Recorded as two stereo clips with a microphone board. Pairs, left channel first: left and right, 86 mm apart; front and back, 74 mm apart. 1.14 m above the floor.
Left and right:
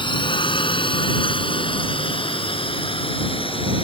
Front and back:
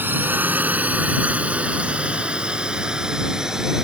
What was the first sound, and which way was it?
A drone, 115° left.